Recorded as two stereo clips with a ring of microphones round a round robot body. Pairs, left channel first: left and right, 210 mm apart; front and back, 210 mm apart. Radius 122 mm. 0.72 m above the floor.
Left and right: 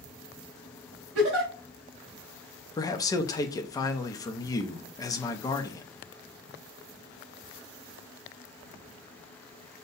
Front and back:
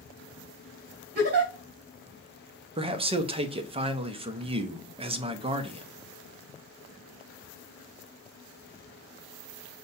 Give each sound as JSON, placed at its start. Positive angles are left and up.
{"t": 1.1, "sound": "a giggle", "azimuth_deg": -130, "distance_m": 1.9}
{"t": 2.8, "sound": "a man speaking", "azimuth_deg": 145, "distance_m": 0.6}